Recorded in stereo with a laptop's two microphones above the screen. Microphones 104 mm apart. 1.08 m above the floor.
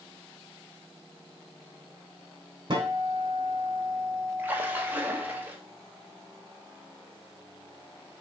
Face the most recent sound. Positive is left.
turn(degrees=-15)  # may be behind; listen again after turning